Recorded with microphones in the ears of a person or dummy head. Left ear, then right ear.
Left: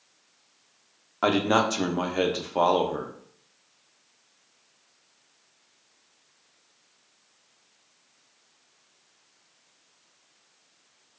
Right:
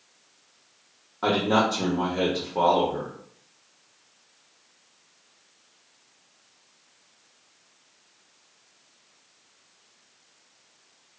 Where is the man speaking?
55° left (ahead or behind), 0.6 m.